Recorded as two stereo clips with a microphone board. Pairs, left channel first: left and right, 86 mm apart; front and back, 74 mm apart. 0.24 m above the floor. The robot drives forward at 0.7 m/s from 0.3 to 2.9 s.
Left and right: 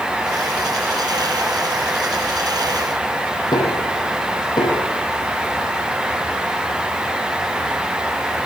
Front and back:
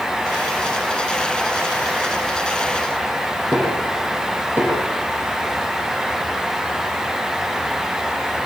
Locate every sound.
3.5 s knocking: 125° left, 9 m